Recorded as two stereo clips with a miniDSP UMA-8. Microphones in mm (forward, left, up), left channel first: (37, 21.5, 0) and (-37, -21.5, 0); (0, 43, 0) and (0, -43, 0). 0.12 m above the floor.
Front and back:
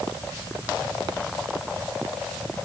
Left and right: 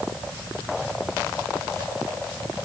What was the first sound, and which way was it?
Only background noise.